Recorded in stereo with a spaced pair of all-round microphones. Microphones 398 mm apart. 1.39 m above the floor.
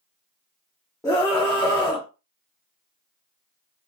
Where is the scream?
10° left (ahead or behind), 0.7 m.